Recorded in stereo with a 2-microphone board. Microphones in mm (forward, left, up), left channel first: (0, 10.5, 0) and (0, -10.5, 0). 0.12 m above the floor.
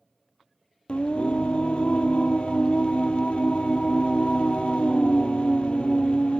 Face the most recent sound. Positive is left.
turn(degrees=70)  # may be behind; listen again after turning